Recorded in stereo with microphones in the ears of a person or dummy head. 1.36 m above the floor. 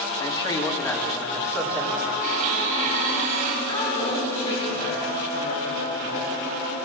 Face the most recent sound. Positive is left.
turn(degrees=20)  # may be behind; listen again after turning